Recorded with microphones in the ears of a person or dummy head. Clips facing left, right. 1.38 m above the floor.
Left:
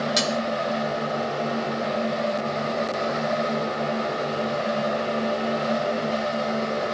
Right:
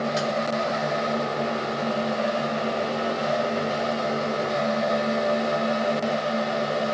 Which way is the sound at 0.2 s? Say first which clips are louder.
Even; 55° left (ahead or behind).